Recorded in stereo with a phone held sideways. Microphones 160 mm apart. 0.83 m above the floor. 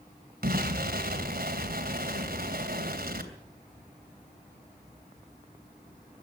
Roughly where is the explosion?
Right.